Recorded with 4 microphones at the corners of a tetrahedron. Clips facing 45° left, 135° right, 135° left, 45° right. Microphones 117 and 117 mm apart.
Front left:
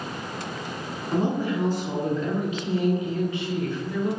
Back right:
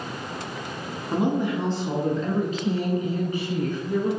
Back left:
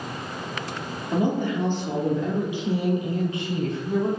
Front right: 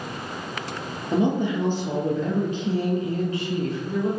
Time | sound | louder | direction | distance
1.1 | a woman speaking | back right 1 dB, front right 2 dB | 75° right | 1.2 m